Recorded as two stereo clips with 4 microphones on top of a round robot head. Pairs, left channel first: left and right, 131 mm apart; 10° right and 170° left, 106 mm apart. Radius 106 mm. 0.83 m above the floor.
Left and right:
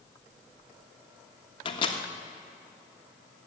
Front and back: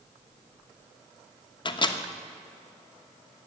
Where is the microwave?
35° left, 1.1 m.